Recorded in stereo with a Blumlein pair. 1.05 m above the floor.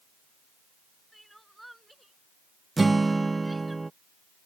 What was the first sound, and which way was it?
Crying, 5° right.